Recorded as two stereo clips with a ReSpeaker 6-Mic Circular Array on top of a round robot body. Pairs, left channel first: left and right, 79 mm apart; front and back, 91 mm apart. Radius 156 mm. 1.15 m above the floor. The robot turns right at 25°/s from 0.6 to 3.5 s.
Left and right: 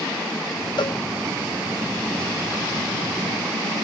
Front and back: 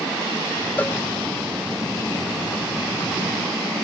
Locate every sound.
0.8 s a cowbell: 70° left; by 1.0 s 75° left